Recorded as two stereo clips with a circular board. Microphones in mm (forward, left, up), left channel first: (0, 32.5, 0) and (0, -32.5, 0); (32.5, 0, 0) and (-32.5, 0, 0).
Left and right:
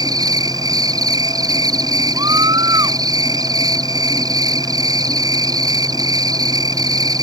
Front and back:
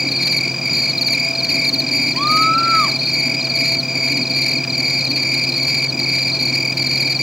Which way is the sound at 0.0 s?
95° right.